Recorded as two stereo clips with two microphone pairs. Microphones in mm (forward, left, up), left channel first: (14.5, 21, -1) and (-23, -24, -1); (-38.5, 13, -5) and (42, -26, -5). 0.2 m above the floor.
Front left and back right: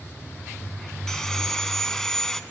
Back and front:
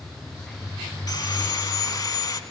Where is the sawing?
130° left, 0.7 m.